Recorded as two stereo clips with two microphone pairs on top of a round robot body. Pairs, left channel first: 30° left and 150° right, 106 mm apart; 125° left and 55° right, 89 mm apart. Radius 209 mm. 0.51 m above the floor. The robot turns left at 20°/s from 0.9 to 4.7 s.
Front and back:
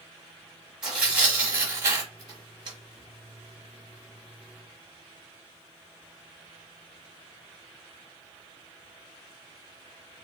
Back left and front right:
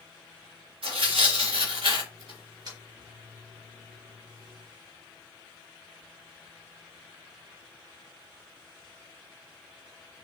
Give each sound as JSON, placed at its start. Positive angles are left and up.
{"t": 0.8, "sound": "tearing paper", "azimuth_deg": -65, "distance_m": 1.1}